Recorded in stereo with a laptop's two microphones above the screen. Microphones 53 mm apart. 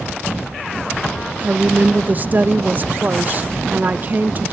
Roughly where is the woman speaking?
Right.